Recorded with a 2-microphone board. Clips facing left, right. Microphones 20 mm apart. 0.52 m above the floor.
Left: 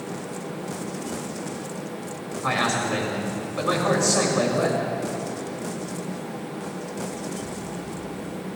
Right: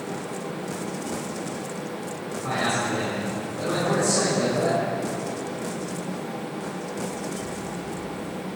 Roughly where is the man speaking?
Left.